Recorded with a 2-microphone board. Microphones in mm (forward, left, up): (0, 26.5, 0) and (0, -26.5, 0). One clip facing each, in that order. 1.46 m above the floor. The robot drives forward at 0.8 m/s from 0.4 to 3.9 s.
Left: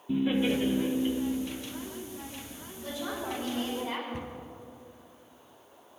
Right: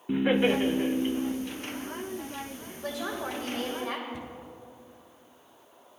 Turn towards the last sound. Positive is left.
turn(degrees=45)  # may be behind; listen again after turning